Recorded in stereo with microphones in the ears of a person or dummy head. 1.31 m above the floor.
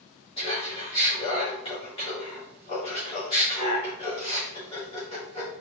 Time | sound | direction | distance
0.4 | laughter | 30° left (ahead or behind) | 1.6 m